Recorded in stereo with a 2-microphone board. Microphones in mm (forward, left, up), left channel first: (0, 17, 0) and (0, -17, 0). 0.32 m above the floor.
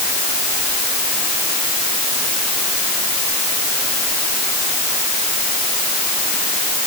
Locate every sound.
Only background noise.